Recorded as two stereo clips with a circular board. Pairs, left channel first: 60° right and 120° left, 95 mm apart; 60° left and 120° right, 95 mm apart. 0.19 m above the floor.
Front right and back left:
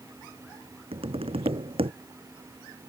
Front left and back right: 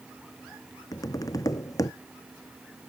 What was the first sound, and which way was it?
Tapping, 110° left.